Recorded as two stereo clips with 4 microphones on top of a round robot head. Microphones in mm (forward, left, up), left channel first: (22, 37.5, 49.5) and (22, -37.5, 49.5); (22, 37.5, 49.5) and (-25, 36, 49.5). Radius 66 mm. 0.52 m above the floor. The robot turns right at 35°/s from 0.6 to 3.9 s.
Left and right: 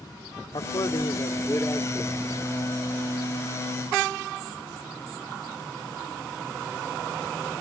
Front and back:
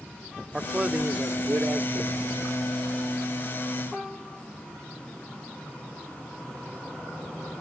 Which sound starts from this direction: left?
A man speaking, at 0.5 s.